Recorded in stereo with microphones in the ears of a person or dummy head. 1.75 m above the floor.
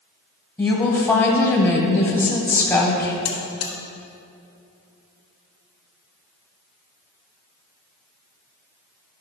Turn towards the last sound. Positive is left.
turn(degrees=40)  # may be behind; listen again after turning